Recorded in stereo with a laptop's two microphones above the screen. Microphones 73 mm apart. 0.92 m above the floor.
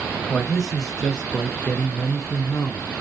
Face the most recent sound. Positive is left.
turn(degrees=60)  # may be behind; listen again after turning